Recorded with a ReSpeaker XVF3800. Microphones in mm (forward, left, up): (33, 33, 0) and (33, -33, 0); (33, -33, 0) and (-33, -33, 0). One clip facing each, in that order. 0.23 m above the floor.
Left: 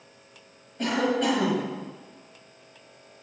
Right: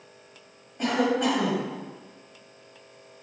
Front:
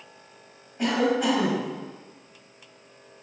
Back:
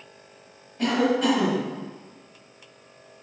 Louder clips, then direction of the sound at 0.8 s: Right 1 dB, back 1 dB; 30° right.